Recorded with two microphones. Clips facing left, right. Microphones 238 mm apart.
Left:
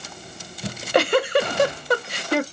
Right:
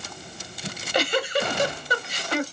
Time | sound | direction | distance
0.6 | a giggle | 60° left (ahead or behind) | 1.0 m